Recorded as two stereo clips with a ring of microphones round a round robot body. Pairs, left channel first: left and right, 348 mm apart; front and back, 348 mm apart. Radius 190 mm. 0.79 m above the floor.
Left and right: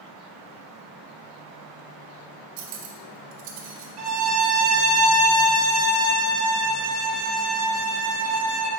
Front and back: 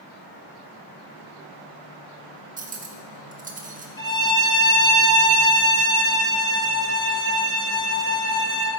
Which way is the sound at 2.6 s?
110° right.